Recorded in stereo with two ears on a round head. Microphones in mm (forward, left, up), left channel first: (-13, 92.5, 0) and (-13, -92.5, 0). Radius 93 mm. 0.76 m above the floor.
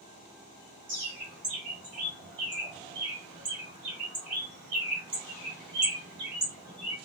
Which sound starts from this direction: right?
A bird, at 0.9 s.